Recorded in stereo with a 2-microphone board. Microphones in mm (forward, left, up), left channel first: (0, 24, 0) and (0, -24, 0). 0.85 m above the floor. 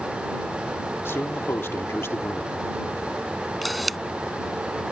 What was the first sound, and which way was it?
A man speaking, 55° left (ahead or behind).